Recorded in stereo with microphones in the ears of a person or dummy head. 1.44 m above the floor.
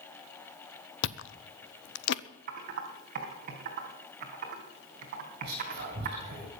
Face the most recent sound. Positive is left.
turn(degrees=-55)  # may be behind; listen again after turning